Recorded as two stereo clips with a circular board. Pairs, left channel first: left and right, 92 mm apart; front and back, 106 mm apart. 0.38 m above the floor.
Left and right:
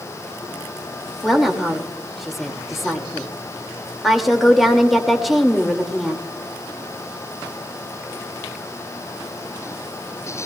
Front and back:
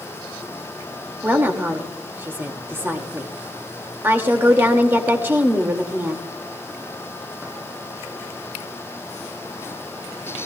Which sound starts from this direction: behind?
A woman speaking, at 1.2 s.